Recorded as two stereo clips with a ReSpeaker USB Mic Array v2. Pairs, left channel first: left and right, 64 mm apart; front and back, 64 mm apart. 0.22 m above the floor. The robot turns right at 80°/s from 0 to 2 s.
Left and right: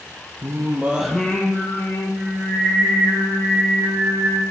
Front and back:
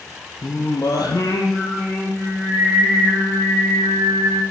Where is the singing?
55° right, 0.9 m; by 4.4 s 70° left, 0.9 m.